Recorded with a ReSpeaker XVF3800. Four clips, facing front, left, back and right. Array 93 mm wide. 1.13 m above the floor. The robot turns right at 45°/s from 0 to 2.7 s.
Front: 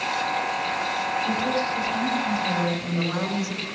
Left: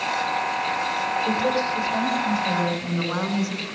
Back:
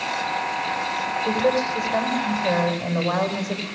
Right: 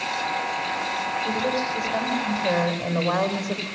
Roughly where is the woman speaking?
Behind.